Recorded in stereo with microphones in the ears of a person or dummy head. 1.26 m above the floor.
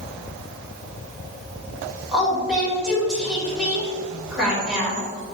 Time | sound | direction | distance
2.1 | a woman speaking | 5° right (ahead or behind) | 1.8 m